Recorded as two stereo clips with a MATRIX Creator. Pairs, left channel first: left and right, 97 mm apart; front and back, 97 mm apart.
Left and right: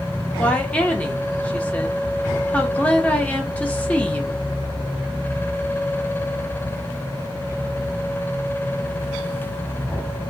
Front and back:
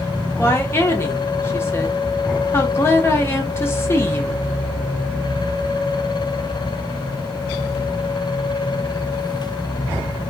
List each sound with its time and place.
0.4 s a woman speaking: 30° left, 0.9 m